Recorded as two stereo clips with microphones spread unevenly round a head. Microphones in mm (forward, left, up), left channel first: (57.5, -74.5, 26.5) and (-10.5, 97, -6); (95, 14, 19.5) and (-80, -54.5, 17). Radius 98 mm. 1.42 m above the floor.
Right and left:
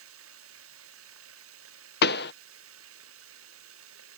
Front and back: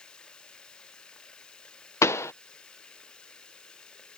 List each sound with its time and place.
0.0 s running water: 105° left
2.0 s a pop: 55° right